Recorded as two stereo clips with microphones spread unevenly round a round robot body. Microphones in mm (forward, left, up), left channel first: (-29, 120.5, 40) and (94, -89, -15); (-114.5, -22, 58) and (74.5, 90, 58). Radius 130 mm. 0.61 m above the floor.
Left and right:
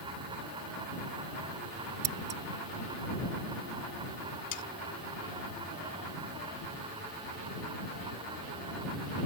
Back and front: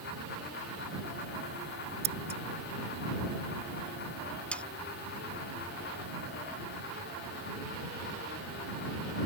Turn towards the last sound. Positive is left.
turn(degrees=125)